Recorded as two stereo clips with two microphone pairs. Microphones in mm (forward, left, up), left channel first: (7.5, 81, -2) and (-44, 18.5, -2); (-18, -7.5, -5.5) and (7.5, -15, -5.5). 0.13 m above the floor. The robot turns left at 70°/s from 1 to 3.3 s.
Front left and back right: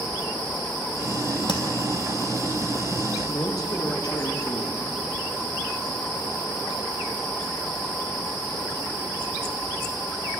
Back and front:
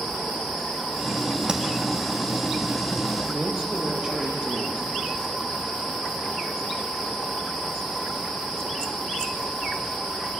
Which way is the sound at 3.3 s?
30° left.